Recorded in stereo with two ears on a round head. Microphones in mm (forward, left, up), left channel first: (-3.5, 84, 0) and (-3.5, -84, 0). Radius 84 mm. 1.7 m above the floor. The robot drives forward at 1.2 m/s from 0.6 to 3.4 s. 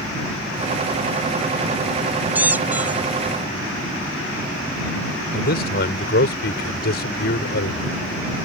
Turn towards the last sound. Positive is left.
turn(degrees=55)  # may be behind; listen again after turning